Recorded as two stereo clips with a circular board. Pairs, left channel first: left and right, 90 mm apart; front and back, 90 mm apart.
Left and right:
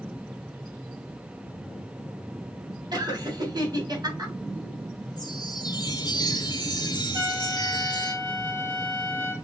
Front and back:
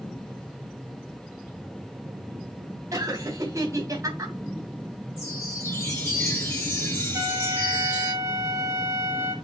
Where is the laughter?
130° right, 3 m.